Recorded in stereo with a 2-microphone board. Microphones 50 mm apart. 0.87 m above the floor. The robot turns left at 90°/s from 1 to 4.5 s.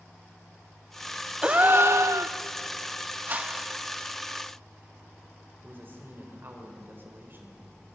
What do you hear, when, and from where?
1.4 s a gasp: 25° right, 0.7 m; by 2.4 s 105° right, 0.7 m
3.3 s a whoosh: 130° right, 1.0 m; by 3.8 s straight behind, 1.0 m
5.6 s a man speaking: 40° right (ahead or behind), 4 m